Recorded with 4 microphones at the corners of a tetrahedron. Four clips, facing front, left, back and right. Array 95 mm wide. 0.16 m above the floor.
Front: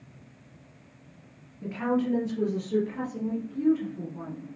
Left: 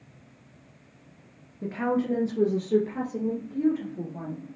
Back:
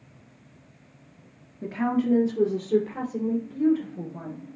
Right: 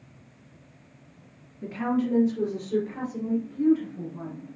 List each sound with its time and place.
1.6 s a woman speaking: 125° left, 1.9 m; by 4.4 s 140° left, 5 m